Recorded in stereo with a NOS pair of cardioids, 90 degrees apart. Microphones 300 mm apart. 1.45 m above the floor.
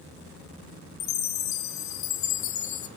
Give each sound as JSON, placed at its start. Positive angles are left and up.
{"t": 1.0, "sound": "a chime", "azimuth_deg": 70, "distance_m": 1.0}